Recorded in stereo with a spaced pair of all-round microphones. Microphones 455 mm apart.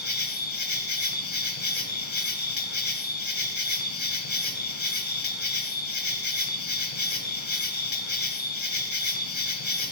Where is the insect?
70° left (ahead or behind), 1.1 m.